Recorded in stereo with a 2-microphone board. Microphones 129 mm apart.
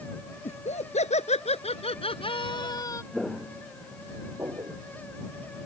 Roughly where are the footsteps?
Centre.